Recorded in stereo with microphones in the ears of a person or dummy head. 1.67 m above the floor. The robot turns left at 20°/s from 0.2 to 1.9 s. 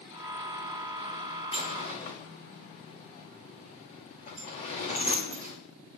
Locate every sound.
1.5 s a sliding door: 30° left (ahead or behind), 3 m; by 5.6 s 40° left (ahead or behind), 3 m